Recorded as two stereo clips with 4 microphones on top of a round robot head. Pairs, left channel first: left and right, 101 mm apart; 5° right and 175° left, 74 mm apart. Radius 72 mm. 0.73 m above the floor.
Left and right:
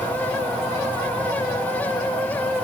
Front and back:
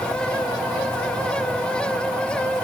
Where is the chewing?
I don't hear chewing.